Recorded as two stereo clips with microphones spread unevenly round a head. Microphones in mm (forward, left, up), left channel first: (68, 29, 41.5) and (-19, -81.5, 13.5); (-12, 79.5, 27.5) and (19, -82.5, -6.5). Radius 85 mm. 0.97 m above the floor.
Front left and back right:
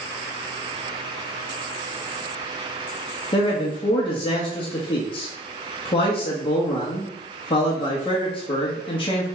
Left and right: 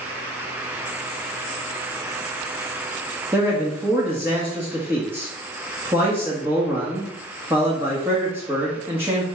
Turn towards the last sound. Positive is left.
turn(degrees=-5)